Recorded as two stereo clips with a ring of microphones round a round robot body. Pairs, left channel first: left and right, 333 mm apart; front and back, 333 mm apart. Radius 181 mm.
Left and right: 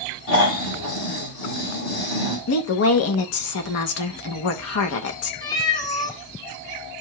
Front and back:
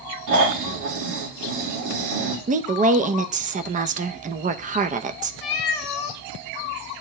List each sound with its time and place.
0.3 s snoring: 145° left, 2.5 m
2.5 s a woman speaking: 120° left, 0.7 m
5.4 s a cat meowing: 10° left, 1.0 m